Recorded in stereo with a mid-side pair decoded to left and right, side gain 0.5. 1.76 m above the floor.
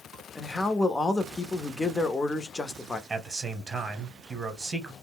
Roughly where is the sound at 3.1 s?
Ahead right.